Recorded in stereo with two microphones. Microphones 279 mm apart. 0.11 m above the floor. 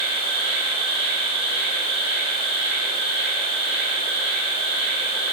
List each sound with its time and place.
0.0 s an insect: 30° left (ahead or behind), 2.5 m